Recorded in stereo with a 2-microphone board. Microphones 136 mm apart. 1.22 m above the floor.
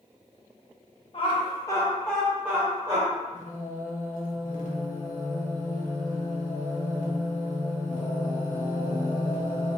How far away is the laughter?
About 0.8 m.